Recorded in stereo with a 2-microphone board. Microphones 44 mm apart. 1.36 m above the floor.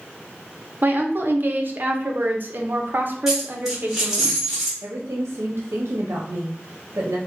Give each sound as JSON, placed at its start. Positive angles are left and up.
{"t": 0.8, "sound": "a woman speaking", "side_deg": -50, "distance_m": 0.6}
{"t": 3.3, "sound": "a dropped coin", "side_deg": -5, "distance_m": 1.3}
{"t": 4.8, "sound": "a woman speaking", "side_deg": -80, "distance_m": 0.6}